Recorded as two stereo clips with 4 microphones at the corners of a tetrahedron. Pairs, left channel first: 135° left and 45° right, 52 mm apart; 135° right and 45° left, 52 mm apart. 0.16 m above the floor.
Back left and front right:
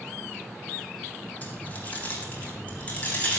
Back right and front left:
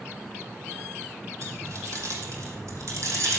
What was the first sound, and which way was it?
Keys jangling, 75° left.